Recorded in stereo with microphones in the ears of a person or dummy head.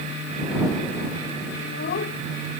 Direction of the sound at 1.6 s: 50° left (ahead or behind).